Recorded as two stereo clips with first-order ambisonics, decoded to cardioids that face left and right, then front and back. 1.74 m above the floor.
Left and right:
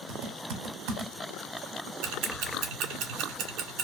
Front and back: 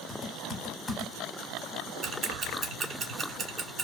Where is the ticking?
125° right, 0.7 m.